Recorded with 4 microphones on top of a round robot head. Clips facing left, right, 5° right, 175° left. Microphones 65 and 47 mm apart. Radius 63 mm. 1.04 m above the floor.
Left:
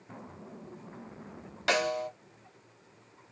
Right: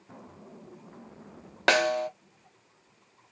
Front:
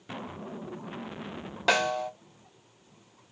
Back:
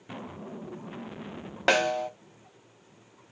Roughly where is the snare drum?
Behind right.